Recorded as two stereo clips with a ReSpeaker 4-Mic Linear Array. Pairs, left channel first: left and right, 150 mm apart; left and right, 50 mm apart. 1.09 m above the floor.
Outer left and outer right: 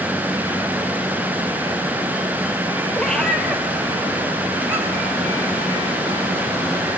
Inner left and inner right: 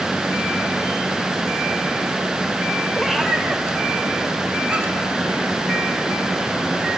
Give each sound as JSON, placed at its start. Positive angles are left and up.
{"t": 3.0, "sound": "a cat meowing", "side_deg": 5, "distance_m": 1.8}